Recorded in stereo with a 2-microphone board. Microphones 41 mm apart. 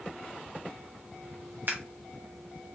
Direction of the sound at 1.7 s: 55° right (ahead or behind).